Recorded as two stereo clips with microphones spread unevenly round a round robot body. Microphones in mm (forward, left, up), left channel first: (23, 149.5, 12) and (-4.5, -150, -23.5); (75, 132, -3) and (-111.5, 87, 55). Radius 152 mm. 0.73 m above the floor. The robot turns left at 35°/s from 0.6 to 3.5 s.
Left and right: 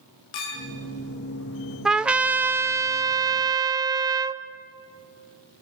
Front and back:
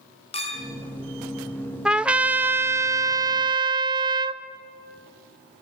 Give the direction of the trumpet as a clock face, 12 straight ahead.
1 o'clock.